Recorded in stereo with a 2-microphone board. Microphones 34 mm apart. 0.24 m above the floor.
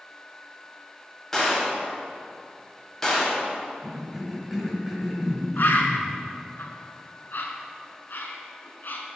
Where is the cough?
5° right (ahead or behind), 0.9 m.